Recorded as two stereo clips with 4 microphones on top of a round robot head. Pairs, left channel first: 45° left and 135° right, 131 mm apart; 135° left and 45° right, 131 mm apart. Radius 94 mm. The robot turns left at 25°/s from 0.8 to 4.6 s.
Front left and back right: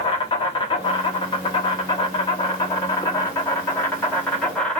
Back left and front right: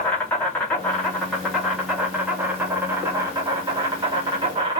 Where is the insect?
60° left, 1.1 m; by 4.8 s 35° right, 1.1 m.